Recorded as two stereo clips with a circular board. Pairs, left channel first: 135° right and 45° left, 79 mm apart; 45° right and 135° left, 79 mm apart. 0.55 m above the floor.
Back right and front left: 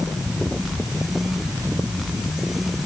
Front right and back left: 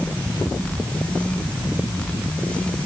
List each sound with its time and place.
Only background noise.